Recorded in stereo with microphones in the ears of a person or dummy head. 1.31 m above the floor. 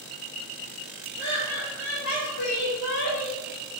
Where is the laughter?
40° left (ahead or behind), 1.8 m; by 3.4 s 20° left (ahead or behind), 0.7 m.